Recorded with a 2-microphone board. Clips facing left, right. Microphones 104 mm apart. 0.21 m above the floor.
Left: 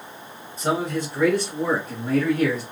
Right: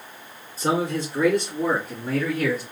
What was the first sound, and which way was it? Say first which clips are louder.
A man speaking: right 1 dB; 35° right (ahead or behind).